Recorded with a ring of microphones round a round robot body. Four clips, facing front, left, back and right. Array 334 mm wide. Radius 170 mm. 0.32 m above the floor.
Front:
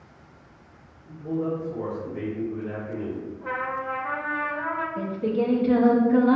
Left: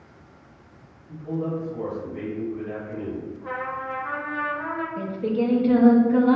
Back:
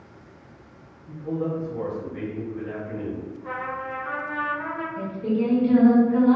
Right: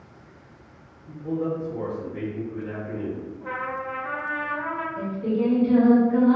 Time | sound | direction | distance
1.1 | a man speaking | 140° right | 2.0 m
3.4 | a trumpet | 30° right | 1.5 m
5.0 | singing | 20° left | 1.3 m